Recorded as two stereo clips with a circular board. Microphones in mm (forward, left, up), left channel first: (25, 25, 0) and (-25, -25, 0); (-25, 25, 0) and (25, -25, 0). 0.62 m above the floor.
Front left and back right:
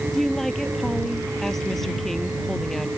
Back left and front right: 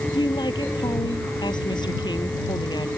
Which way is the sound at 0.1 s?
130° left.